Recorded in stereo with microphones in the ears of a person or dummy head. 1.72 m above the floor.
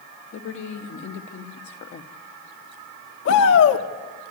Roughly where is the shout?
Left.